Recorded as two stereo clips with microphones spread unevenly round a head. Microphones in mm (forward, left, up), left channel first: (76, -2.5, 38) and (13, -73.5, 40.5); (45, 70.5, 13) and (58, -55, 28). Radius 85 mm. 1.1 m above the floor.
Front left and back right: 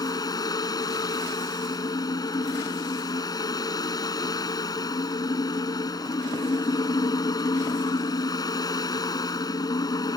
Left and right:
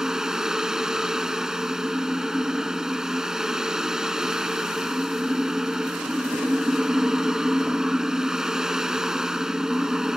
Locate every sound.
0.0 s a fan: straight ahead